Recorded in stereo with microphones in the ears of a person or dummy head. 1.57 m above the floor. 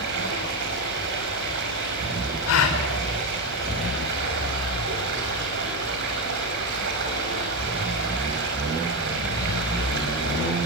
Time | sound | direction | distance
0.0 | running water | 60° right (ahead or behind) | 5.5 m
2.5 | a gasp | 80° left | 4.5 m